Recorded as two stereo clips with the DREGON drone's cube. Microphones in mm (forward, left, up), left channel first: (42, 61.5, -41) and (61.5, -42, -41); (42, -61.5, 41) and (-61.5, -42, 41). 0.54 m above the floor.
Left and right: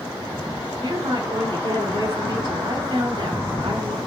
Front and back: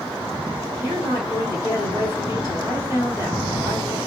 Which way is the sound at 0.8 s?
55° right.